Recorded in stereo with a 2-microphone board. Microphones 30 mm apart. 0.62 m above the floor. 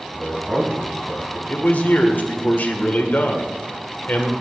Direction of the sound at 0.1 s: 25° right (ahead or behind).